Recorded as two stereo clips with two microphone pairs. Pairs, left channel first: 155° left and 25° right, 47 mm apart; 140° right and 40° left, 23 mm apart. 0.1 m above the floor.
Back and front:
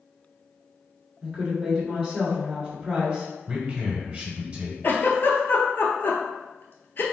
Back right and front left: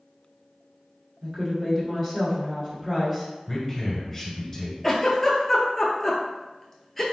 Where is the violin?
I don't hear a violin.